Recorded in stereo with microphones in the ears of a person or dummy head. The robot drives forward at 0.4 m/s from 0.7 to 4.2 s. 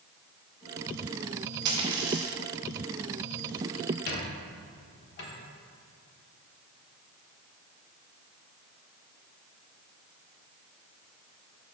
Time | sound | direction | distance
1.6 | a dropped coin | 25° right (ahead or behind) | 0.9 m
4.1 | a squeak | 50° left (ahead or behind) | 1.2 m